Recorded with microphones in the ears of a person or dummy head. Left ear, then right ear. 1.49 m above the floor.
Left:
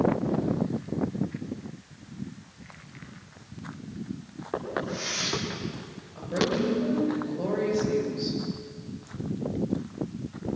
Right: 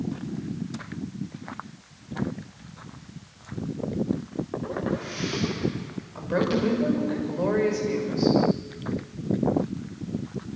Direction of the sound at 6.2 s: 50° right (ahead or behind).